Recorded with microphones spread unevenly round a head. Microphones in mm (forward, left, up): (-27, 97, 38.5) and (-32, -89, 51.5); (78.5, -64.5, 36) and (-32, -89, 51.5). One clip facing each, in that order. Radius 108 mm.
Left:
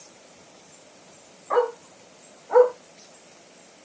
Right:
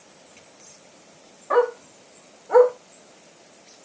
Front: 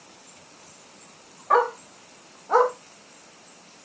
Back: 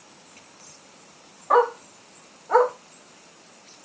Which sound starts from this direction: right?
A dog barking, at 1.5 s.